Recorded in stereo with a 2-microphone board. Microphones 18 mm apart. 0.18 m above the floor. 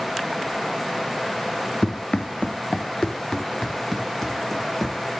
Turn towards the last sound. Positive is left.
turn(degrees=10)  # may be behind; listen again after turning